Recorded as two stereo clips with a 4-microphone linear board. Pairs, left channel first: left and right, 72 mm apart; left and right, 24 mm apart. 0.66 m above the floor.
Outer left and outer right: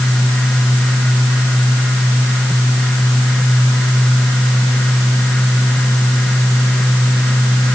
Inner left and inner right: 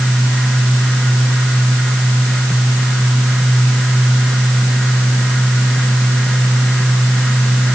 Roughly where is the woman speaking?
No woman speaking in this recording.